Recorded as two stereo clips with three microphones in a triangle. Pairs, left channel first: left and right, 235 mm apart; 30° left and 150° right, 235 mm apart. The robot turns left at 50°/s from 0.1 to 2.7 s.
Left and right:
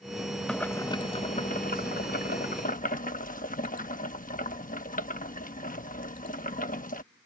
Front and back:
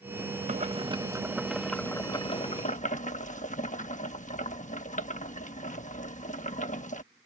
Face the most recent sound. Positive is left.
turn(degrees=65)